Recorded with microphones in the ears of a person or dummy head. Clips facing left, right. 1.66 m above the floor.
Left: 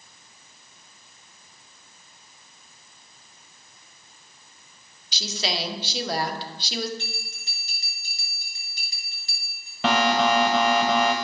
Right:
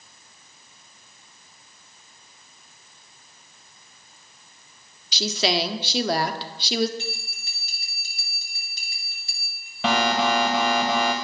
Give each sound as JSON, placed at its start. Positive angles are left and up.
{"t": 5.1, "sound": "a woman speaking", "side_deg": -55, "distance_m": 0.8}
{"t": 7.0, "sound": "a bell", "side_deg": -70, "distance_m": 5.0}
{"t": 9.8, "sound": "an alarm", "side_deg": 5, "distance_m": 0.8}